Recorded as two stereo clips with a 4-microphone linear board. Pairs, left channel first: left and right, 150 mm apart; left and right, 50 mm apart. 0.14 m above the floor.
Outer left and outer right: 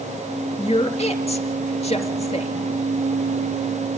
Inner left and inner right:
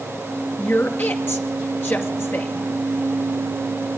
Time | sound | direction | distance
0.6 | a woman speaking | 45° left (ahead or behind) | 2.5 m